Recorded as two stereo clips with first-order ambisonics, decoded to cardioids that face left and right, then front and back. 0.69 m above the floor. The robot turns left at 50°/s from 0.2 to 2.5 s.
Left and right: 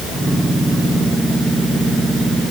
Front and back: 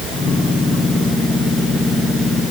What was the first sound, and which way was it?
Only background noise.